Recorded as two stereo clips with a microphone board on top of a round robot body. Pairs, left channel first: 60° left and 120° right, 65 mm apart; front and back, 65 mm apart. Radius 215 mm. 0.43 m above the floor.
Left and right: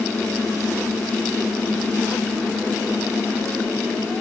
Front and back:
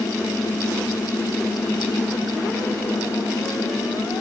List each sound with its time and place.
Only background noise.